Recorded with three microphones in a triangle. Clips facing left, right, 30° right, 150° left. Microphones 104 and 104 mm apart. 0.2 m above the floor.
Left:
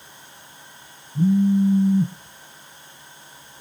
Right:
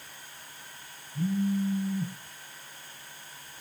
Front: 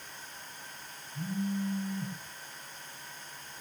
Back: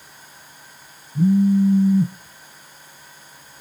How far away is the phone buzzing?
About 4 m.